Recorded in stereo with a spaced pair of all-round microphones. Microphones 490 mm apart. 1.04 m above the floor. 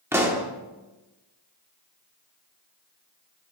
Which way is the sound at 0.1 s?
5° right (ahead or behind).